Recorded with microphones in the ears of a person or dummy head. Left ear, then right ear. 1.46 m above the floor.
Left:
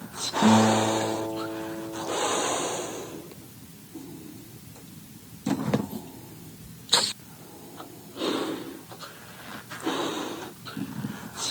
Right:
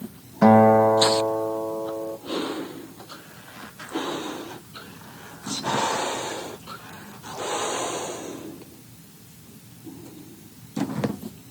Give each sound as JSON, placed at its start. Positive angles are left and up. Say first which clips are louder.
{"t": 0.4, "sound": "a guitar", "louder": "right 7 dB", "side_deg": -75, "distance_m": 0.5}